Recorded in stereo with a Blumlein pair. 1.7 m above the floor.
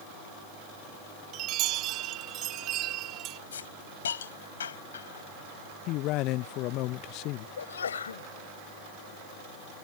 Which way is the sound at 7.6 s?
70° left.